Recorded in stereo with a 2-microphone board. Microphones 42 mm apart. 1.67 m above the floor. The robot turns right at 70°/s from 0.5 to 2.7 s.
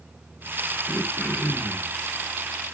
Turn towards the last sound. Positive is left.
turn(degrees=155)